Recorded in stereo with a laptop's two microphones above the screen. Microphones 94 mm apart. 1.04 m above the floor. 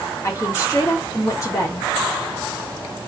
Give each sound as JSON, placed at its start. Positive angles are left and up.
{"t": 0.2, "sound": "a woman speaking", "side_deg": 35, "distance_m": 1.3}